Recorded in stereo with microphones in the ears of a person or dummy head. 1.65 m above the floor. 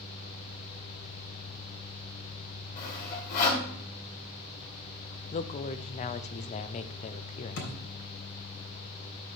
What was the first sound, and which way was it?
Sawing, 50° left (ahead or behind).